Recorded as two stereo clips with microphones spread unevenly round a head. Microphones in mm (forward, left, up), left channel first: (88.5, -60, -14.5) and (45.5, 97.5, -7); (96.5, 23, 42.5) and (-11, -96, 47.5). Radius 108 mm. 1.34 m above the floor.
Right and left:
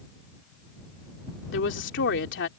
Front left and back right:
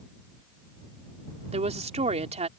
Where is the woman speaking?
85° right.